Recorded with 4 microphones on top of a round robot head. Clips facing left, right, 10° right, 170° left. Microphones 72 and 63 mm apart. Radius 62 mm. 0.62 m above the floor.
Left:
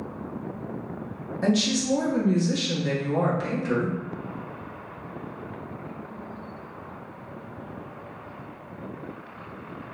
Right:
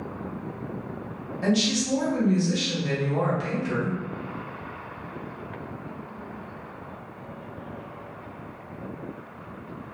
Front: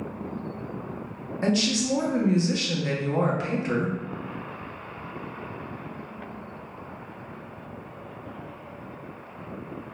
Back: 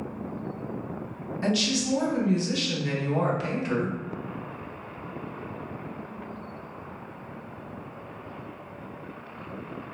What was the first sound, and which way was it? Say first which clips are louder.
A woman speaking: left 1 dB, front 2 dB; 45° left.